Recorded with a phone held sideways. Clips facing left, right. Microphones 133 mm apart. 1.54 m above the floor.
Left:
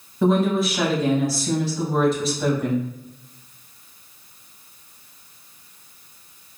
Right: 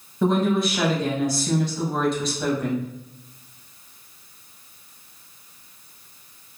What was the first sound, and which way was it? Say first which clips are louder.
A woman speaking: left 1 dB; centre (ahead or behind).